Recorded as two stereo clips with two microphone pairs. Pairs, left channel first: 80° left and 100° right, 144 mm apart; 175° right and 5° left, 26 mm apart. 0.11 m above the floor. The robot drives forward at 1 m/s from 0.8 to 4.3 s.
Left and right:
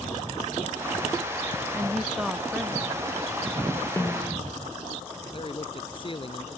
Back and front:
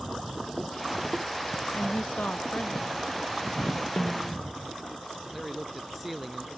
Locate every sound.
1.7 s a woman speaking: 175° left
4.0 s a snare drum: 155° left
5.3 s a man speaking: 90° left